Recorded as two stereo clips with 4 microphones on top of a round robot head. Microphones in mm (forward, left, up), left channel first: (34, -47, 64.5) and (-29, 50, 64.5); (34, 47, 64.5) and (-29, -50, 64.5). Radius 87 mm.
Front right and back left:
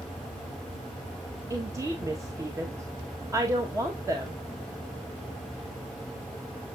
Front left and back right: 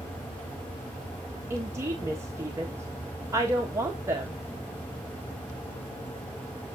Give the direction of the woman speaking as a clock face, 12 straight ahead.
6 o'clock.